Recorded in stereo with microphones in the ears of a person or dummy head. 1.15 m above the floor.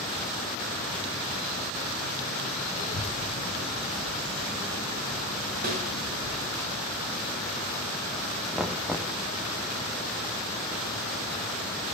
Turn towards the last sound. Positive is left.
turn(degrees=0)  # may be behind; listen again after turning